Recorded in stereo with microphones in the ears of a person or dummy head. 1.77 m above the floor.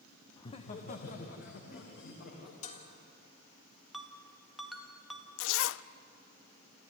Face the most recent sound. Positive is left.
turn(degrees=70)  # may be behind; listen again after turning